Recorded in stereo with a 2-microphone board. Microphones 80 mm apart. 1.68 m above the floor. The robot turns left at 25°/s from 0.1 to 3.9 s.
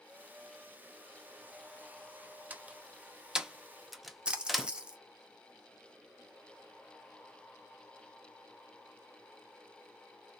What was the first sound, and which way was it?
A door slam, 20° right (ahead or behind).